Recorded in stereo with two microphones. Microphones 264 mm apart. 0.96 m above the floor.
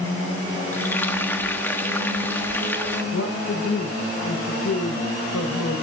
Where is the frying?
10° left (ahead or behind), 1.3 m.